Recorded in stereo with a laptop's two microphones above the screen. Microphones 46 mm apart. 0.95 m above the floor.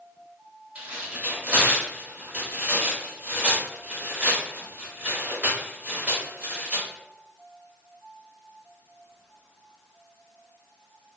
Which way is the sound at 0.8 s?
35° right (ahead or behind).